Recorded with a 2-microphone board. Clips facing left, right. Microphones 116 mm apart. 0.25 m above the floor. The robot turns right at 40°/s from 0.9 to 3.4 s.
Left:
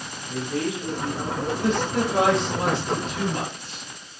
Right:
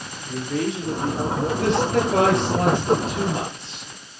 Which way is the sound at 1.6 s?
95° right.